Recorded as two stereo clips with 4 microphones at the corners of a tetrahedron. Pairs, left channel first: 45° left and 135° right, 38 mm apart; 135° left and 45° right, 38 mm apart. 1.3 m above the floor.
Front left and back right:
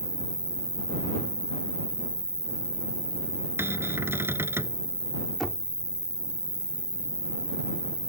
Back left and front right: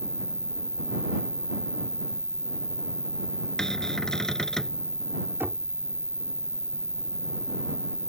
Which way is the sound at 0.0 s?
60° left.